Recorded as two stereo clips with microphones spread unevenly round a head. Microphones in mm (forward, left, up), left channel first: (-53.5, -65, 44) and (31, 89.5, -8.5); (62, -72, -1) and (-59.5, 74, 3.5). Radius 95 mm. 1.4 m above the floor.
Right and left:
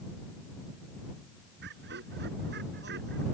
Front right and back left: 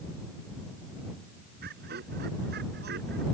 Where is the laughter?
90° left.